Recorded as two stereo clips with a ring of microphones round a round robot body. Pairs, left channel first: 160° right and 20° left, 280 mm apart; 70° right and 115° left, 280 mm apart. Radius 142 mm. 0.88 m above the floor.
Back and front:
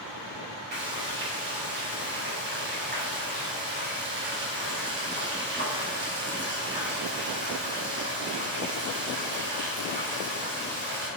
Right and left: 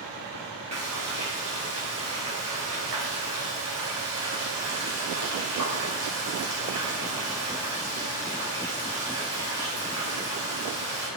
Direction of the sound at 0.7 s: 75° left.